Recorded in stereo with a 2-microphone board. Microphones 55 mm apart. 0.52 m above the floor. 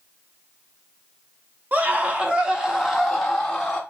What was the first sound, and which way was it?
A scream, 35° right (ahead or behind).